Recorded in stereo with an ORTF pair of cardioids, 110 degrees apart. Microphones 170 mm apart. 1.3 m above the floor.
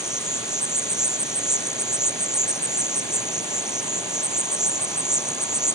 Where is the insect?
5° right.